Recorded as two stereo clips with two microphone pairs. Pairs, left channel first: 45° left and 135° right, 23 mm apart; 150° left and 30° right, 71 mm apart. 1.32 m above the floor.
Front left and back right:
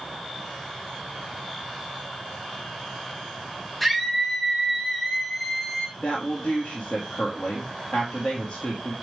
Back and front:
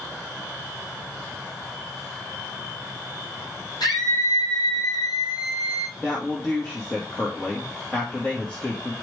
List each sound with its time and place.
3.8 s a scream: 135° left, 5.5 m; by 5.9 s 120° left, 5 m
6.0 s a woman speaking: 70° left, 1.7 m